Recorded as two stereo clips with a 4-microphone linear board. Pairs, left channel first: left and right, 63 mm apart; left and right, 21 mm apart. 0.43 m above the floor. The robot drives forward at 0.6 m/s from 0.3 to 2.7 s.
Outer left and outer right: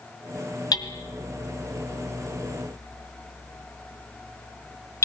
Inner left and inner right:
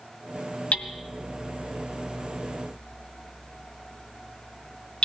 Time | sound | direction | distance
0.7 | hammering | 75° left (ahead or behind) | 1.5 m